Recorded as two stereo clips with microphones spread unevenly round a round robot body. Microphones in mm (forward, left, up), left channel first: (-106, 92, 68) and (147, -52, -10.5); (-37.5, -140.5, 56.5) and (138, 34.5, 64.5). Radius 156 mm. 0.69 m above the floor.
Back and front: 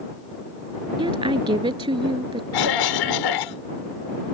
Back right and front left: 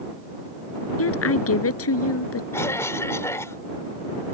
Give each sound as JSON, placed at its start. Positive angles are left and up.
{"t": 1.0, "sound": "a woman speaking", "azimuth_deg": -105}
{"t": 2.5, "sound": "a cough", "azimuth_deg": 145}